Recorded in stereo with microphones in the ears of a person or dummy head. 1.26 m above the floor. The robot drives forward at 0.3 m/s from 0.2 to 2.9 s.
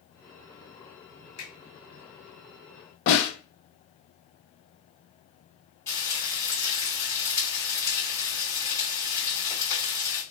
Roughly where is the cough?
I don't hear a cough.